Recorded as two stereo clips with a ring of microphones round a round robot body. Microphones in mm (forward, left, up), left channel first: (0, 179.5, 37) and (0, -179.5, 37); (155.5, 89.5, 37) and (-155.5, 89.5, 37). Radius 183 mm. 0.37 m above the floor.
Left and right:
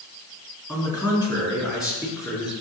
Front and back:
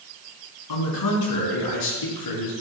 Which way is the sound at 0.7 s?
10° left.